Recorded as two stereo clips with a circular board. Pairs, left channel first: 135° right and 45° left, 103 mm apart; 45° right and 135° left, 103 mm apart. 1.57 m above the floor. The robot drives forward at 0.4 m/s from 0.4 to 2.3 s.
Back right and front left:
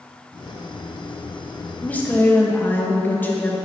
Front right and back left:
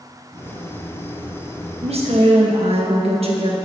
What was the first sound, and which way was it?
A woman speaking, 150° left.